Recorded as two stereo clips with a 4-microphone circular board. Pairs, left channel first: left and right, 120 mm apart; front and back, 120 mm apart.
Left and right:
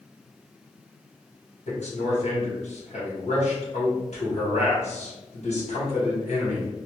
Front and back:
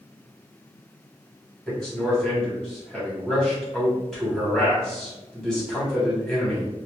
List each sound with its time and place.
1.7 s a man speaking: 85° left, 1.4 m